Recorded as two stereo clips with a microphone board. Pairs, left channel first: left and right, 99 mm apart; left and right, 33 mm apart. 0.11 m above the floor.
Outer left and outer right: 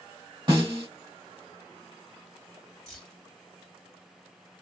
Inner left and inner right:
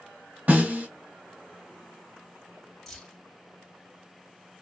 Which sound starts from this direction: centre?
Keys jangling, at 2.9 s.